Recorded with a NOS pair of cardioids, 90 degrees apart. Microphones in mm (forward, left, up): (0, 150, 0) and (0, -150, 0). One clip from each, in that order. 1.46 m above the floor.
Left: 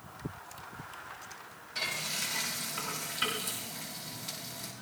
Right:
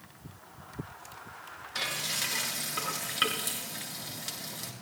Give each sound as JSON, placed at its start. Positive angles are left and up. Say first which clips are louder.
{"t": 1.8, "sound": "frying", "louder": "right 2 dB", "azimuth_deg": -65, "distance_m": 8.0}